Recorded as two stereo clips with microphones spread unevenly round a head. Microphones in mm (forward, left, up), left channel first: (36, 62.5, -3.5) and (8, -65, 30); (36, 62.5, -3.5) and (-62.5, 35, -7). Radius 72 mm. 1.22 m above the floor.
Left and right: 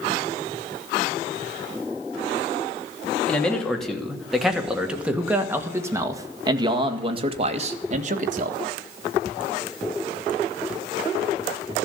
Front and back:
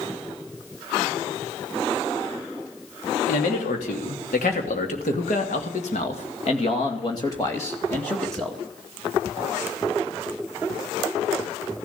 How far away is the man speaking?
About 3 m.